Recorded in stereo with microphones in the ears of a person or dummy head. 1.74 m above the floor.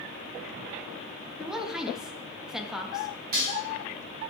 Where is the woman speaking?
5° right (ahead or behind), 0.7 m.